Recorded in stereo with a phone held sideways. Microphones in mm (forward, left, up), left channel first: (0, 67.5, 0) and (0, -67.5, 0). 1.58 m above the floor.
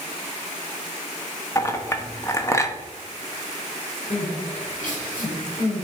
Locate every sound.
1.6 s a clink: 20° left (ahead or behind), 0.9 m
4.1 s crying: 75° left (ahead or behind), 4 m